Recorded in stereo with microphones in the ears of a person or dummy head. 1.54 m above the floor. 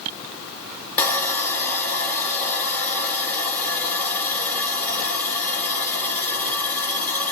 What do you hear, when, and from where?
1.0 s sawing: 10° left (ahead or behind), 1.4 m